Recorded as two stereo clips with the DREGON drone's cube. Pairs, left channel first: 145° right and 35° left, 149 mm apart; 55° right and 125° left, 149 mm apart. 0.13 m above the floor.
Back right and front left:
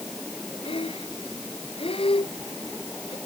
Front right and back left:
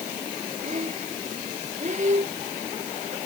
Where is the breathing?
160° left.